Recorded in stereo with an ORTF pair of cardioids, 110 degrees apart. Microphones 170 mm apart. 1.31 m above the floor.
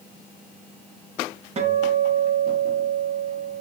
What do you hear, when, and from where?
1.6 s a guitar: 40° right, 1.1 m